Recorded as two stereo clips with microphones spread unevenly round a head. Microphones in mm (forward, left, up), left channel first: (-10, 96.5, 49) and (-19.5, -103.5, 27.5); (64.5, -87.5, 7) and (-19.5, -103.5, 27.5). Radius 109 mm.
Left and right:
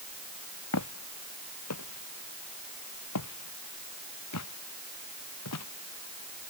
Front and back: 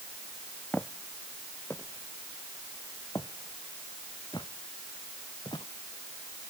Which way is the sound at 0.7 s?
95° left.